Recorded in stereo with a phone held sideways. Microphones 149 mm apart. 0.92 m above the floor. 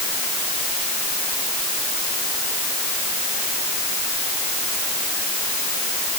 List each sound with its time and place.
Only background noise.